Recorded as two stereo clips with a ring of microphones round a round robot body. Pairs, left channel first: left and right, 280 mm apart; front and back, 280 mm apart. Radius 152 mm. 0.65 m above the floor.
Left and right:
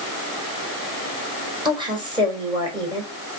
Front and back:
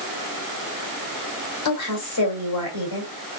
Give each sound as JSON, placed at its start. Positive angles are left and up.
{"t": 1.6, "sound": "a woman speaking", "azimuth_deg": -15, "distance_m": 3.0}